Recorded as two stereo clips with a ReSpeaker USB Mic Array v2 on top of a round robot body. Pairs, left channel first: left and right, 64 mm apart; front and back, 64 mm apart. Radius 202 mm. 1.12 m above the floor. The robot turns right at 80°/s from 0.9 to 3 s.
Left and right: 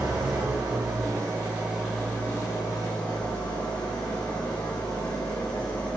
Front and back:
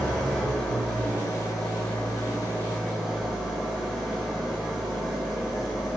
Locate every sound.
0.0 s an engine running: 80° right, 1.3 m; by 6.0 s 90° left, 1.3 m